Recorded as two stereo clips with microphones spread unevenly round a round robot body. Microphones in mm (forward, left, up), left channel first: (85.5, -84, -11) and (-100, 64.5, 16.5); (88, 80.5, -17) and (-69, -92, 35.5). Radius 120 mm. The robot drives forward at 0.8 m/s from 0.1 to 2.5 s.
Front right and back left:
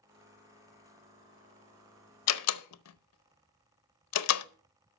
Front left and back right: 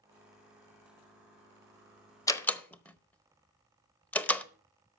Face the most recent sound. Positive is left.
turn(degrees=-30)